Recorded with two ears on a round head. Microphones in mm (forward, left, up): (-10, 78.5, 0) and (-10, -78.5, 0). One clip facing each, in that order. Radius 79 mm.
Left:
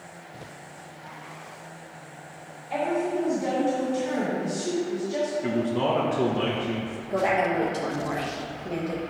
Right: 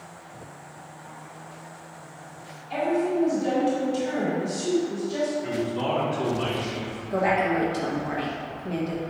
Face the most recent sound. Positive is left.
turn(degrees=0)  # may be behind; listen again after turning